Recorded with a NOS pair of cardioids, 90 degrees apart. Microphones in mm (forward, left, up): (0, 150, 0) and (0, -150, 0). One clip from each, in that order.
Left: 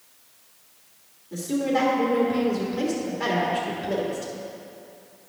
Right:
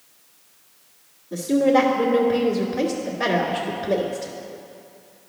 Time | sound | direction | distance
1.3 | a woman speaking | 25° right | 1.6 m